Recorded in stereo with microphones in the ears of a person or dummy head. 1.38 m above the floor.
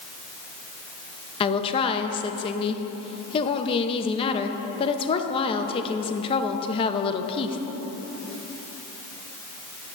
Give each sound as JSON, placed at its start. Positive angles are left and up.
{"t": 1.4, "sound": "a woman speaking", "side_deg": 25, "distance_m": 0.8}